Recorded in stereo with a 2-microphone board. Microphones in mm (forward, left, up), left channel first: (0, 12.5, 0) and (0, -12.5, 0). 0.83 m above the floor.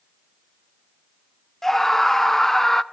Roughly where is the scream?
Centre.